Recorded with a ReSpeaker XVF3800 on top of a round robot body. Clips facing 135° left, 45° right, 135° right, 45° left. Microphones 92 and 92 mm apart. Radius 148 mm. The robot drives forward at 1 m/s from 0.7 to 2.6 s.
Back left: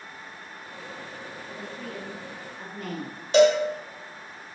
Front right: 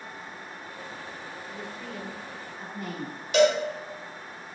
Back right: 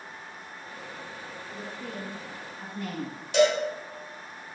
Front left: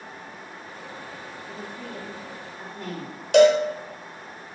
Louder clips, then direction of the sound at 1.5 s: Back left 2 dB, front left 1 dB; 85° left.